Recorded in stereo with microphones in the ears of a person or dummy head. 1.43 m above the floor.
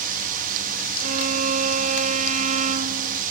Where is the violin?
35° right (ahead or behind).